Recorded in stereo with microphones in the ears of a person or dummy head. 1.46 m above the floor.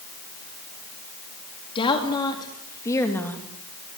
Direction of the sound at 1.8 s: 25° left (ahead or behind).